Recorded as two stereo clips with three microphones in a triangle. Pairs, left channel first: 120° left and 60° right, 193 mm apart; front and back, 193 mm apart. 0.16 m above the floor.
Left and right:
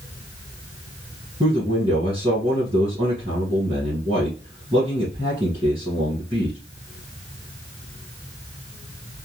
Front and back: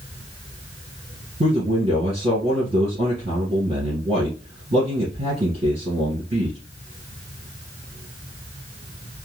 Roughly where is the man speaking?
Behind right.